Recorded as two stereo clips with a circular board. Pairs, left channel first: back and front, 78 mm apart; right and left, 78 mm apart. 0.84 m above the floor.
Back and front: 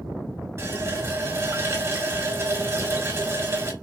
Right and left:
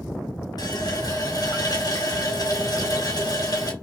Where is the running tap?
50° right, 1.5 m.